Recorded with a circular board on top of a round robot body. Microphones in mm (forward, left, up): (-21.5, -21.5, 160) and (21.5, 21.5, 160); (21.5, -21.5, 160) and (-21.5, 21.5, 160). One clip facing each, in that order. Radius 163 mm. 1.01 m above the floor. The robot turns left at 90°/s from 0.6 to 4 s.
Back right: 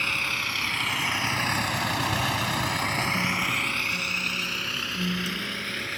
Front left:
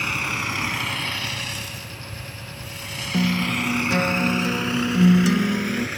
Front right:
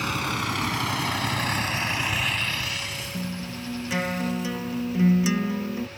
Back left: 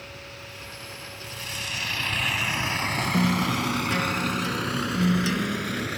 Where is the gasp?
I don't hear a gasp.